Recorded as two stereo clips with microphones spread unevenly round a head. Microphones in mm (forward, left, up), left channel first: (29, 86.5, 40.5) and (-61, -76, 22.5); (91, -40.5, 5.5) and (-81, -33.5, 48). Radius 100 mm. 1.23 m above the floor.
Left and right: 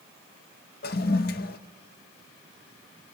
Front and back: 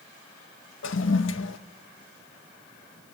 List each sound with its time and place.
0.8 s a toilet flushing: 30° left, 0.6 m